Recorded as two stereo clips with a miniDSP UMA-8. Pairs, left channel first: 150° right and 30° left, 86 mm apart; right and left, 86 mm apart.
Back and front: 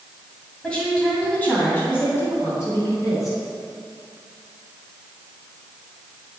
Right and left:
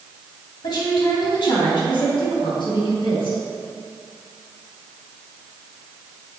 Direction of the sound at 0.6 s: 75° right.